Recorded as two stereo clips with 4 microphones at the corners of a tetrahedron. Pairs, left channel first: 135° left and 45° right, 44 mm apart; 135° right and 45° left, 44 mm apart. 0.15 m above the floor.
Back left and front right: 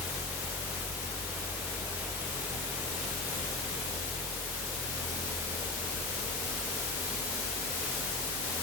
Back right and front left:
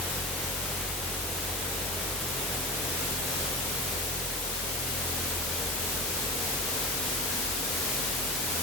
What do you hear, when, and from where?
Only background noise.